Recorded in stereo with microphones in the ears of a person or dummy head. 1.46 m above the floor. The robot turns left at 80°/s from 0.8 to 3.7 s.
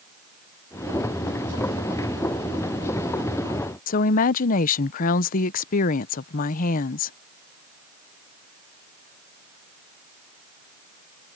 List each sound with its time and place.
3.9 s a woman speaking: 50° left (ahead or behind)